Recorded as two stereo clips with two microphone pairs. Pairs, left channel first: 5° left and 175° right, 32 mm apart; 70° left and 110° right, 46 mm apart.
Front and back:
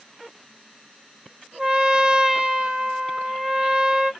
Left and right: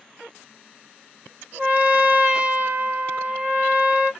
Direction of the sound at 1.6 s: 130° right.